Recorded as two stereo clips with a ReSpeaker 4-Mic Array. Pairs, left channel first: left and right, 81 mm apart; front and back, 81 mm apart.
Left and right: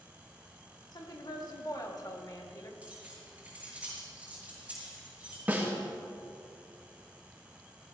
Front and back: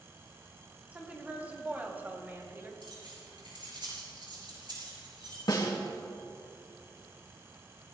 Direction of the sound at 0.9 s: 110° left.